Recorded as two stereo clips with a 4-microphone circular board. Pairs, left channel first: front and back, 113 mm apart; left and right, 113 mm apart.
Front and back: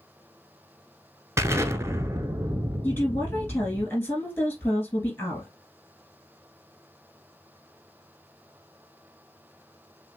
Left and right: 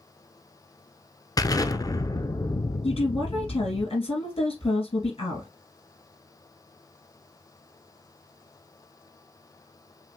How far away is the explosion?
About 0.6 m.